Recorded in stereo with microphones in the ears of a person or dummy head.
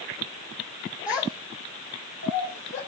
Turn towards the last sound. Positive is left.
turn(degrees=70)  # may be behind; listen again after turning